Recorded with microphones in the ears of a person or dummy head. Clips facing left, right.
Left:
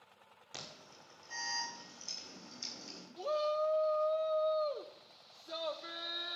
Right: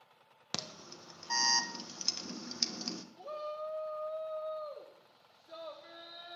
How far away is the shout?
About 1.4 m.